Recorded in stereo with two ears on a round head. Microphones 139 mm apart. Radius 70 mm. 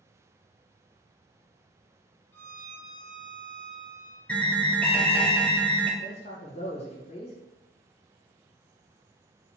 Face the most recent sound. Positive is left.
turn(degrees=40)  # may be behind; listen again after turning